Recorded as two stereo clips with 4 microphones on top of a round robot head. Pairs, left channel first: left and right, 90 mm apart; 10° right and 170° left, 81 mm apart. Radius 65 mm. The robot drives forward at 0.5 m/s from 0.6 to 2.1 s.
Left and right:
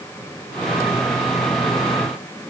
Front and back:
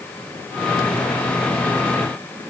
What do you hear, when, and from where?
Only background noise.